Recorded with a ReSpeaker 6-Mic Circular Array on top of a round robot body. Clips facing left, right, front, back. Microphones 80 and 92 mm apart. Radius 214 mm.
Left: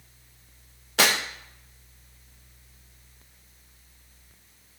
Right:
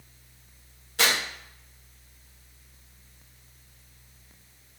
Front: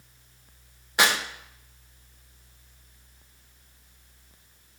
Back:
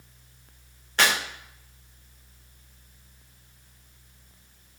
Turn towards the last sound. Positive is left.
turn(degrees=80)